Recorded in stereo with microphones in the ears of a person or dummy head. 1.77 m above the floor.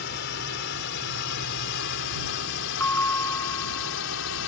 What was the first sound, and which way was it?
A drone, 55° left (ahead or behind).